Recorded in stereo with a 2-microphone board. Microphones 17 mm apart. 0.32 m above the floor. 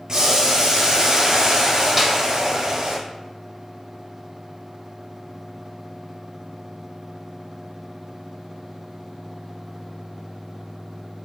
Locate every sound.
0.1 s boiling: 25° right (ahead or behind), 1.0 m
2.0 s a snare drum: centre (ahead or behind), 0.7 m